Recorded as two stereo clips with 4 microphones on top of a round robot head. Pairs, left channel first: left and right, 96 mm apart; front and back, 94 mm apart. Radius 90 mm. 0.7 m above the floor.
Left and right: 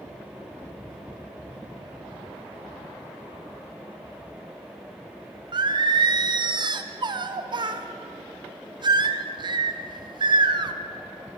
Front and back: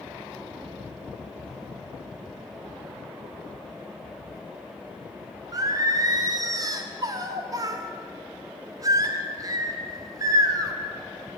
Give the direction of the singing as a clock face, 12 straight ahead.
4 o'clock.